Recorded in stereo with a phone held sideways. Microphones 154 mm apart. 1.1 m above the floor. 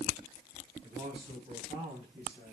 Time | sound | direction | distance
0.8 | a man speaking | 35° right (ahead or behind) | 7.5 m